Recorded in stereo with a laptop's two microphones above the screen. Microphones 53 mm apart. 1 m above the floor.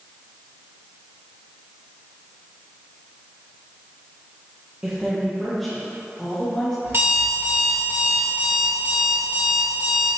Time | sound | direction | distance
4.8 | a woman speaking | 25° right (ahead or behind) | 0.8 m
6.8 | an alarm clock | 50° right (ahead or behind) | 1.6 m